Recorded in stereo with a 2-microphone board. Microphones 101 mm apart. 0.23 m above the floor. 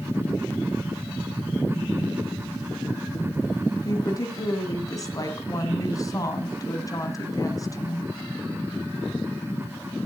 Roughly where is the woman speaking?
Left.